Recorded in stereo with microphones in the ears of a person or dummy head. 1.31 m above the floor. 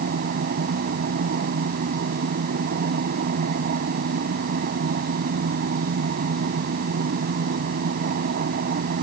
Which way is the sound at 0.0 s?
45° right (ahead or behind).